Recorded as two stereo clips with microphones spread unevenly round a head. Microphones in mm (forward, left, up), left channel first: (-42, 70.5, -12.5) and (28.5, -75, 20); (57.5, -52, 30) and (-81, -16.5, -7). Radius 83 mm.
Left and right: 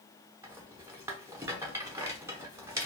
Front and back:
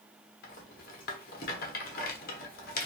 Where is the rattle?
15° left, 0.6 m.